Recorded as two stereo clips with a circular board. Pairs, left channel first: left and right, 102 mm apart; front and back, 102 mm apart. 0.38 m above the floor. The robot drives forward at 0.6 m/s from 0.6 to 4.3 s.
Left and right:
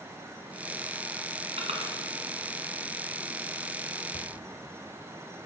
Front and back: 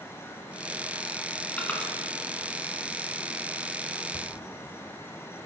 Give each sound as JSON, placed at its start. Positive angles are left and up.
{"t": 1.6, "sound": "crushing", "azimuth_deg": -75, "distance_m": 1.8}
{"t": 4.1, "sound": "a cupboard door", "azimuth_deg": 75, "distance_m": 1.1}